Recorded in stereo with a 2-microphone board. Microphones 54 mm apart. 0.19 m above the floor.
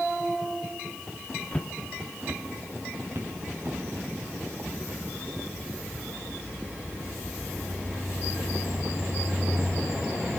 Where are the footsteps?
20° left (ahead or behind), 0.8 m; by 3.8 s 60° right (ahead or behind), 3.5 m.